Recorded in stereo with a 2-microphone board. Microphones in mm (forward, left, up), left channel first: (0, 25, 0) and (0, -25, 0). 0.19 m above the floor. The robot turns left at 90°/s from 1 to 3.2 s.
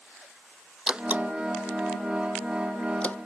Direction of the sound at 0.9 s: 20° right (ahead or behind).